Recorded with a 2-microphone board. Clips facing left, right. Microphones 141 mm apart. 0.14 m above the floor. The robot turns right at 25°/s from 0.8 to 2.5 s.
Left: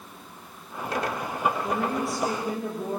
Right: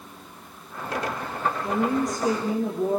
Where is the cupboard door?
No cupboard door in this recording.